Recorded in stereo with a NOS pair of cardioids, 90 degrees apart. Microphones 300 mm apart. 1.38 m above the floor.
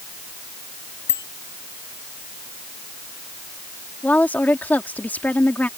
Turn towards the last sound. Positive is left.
turn(degrees=5)